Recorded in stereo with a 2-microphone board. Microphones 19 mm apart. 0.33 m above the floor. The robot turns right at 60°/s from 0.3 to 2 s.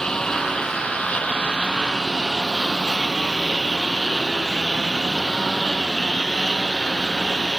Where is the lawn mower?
40° left; by 7.6 s 140° left.